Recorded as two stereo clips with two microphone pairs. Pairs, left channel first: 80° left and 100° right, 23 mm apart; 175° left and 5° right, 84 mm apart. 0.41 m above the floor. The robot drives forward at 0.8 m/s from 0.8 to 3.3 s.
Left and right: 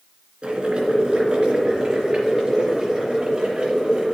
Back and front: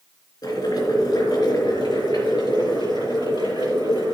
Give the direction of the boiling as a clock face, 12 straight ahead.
5 o'clock.